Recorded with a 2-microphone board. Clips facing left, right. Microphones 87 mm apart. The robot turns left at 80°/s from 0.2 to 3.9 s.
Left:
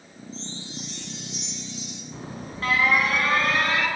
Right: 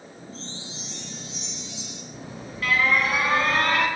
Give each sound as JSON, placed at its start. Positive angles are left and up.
{"t": 0.3, "sound": "a chime", "azimuth_deg": 160, "distance_m": 5.5}
{"t": 2.1, "sound": "an alarm", "azimuth_deg": 75, "distance_m": 8.0}